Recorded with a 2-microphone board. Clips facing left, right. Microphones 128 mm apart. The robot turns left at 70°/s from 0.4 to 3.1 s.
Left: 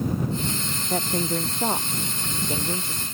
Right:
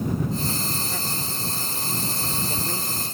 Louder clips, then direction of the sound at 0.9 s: Left 7 dB; 140° left.